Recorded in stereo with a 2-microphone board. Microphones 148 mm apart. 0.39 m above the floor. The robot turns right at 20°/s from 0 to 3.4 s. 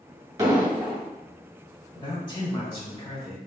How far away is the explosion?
About 1.7 m.